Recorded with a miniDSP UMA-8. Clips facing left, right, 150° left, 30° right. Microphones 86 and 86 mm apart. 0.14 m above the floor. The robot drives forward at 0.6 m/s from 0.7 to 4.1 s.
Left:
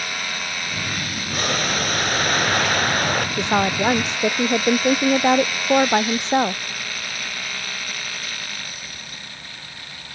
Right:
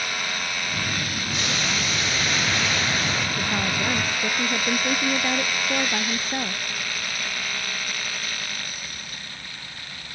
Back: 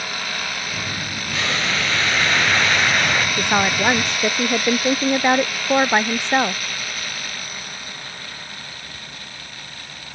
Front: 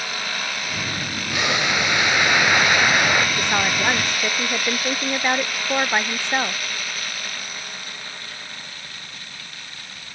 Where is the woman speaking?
75° left; by 6.6 s 80° left.